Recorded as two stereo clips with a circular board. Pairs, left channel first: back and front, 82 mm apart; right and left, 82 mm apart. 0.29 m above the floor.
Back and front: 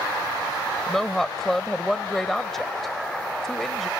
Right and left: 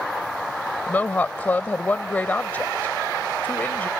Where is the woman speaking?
100° right.